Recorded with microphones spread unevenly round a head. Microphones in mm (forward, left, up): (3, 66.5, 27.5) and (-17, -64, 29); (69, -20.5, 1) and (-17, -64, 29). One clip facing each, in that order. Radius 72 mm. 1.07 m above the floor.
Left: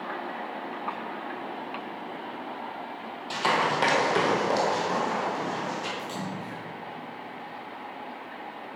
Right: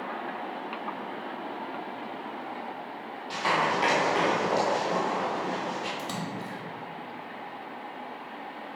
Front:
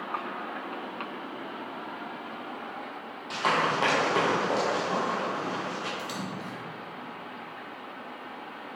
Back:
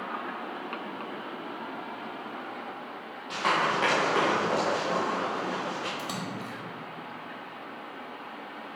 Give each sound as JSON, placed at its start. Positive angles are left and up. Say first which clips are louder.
{"t": 3.3, "sound": "running footsteps", "louder": "left 1 dB, even", "azimuth_deg": 100, "distance_m": 1.5}
{"t": 6.0, "sound": "a splash", "louder": "even, even", "azimuth_deg": -115, "distance_m": 1.2}